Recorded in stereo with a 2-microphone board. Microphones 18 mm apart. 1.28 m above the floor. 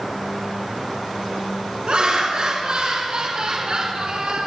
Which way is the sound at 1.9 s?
75° right (ahead or behind).